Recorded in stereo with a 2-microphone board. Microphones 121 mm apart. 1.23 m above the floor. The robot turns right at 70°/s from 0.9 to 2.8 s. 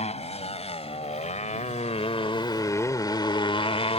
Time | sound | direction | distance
0.0 | a motorcycle | 65° left (ahead or behind) | ?